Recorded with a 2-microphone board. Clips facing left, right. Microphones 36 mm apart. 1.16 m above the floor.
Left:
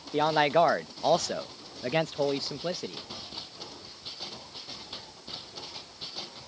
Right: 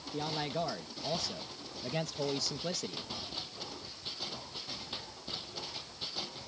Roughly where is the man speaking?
Left.